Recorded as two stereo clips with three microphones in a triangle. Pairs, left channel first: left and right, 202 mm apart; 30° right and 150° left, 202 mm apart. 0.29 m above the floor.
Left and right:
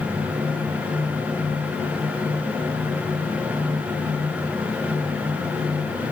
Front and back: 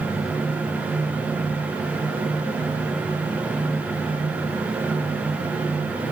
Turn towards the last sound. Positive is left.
No sound to turn to.